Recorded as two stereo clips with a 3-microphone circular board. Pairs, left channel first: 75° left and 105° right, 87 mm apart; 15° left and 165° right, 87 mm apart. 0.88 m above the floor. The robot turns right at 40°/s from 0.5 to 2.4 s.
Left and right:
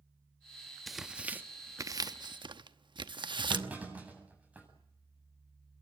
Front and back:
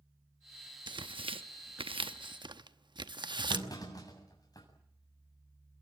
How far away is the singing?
No singing in this recording.